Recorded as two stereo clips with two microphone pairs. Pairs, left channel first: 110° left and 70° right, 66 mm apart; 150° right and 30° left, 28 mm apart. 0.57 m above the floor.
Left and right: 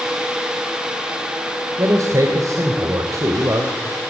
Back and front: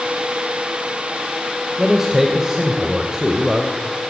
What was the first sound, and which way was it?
A man speaking, 40° right.